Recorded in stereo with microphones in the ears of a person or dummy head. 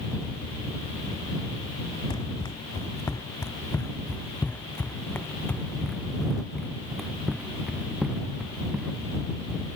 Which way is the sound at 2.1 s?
15° left (ahead or behind).